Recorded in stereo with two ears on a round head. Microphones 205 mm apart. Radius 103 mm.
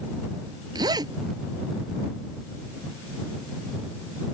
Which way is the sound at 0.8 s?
20° right (ahead or behind).